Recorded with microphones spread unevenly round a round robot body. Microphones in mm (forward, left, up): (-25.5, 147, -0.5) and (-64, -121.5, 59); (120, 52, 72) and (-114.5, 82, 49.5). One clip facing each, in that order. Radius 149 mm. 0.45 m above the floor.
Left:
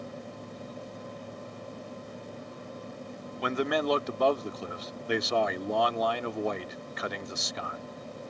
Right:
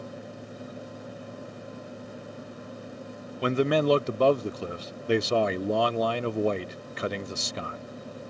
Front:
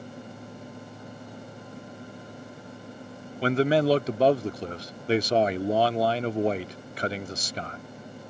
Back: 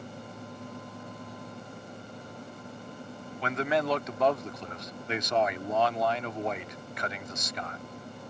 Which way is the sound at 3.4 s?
40° right.